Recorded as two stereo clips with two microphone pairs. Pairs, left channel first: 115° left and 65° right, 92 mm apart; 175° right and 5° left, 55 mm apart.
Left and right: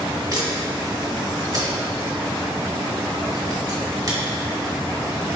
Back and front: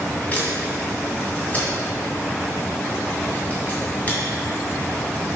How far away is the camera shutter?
About 2 m.